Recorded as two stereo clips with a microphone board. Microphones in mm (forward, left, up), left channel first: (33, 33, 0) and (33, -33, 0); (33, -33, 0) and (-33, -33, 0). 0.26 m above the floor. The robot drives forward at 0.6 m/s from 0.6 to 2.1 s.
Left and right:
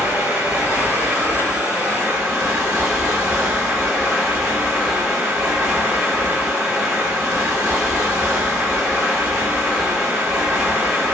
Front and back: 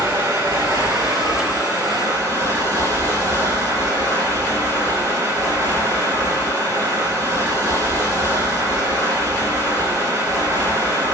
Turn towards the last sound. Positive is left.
turn(degrees=-165)